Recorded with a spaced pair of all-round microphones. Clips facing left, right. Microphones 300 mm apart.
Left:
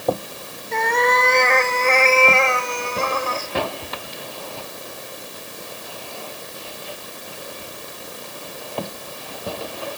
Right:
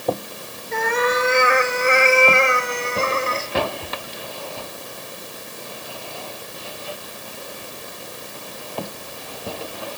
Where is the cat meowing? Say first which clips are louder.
Even; centre (ahead or behind), 1.5 m; by 3.5 s 25° right (ahead or behind), 1.4 m.